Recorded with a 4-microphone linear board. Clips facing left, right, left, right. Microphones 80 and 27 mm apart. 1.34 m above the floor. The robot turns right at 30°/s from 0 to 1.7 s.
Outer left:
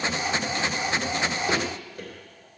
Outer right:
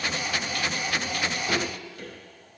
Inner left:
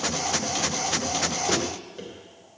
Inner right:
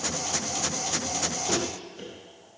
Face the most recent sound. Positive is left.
turn(degrees=35)  # may be behind; listen again after turning